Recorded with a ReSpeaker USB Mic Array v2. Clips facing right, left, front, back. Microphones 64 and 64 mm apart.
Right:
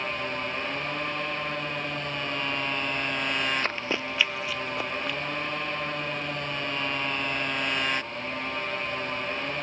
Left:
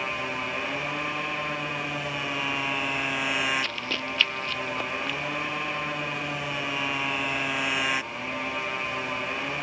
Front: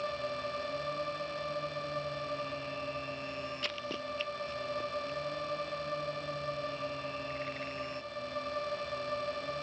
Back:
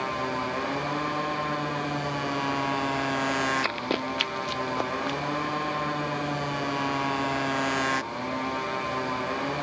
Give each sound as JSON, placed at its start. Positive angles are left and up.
{"t": 0.0, "sound": "a motorcycle", "azimuth_deg": 170}
{"t": 3.6, "sound": "running footsteps", "azimuth_deg": -140}